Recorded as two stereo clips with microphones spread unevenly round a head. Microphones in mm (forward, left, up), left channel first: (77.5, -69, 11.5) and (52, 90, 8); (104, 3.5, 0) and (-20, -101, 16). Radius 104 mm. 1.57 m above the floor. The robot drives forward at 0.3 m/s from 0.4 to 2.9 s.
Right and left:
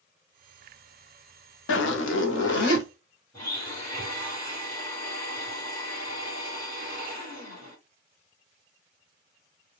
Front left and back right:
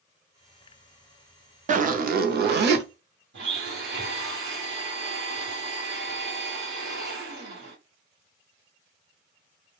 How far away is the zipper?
About 0.5 m.